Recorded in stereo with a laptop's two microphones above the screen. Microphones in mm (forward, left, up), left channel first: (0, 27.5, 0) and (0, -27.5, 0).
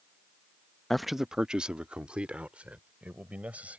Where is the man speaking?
5° left (ahead or behind); by 3.8 s 25° right (ahead or behind).